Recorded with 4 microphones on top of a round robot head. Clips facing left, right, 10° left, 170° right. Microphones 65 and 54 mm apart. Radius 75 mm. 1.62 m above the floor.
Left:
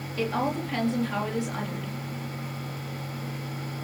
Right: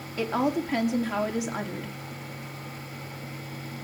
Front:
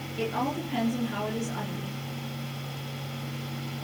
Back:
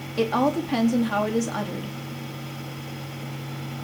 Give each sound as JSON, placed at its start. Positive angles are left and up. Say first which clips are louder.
{"t": 0.2, "sound": "a woman speaking", "louder": "right 2 dB, back 8 dB", "azimuth_deg": -165, "distance_m": 4.0}